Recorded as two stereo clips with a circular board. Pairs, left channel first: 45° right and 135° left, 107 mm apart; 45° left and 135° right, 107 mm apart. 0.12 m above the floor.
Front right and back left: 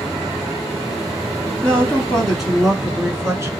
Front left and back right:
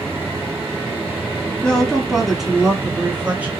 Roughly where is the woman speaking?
Ahead right.